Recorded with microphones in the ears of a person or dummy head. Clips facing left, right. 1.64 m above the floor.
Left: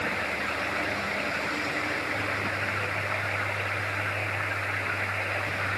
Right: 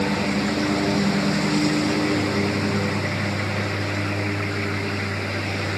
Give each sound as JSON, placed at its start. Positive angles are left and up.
{"t": 0.0, "sound": "a lawn mower", "side_deg": -75}